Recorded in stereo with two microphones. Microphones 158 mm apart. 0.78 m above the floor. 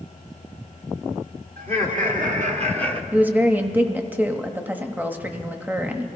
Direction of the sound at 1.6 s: 65° right (ahead or behind).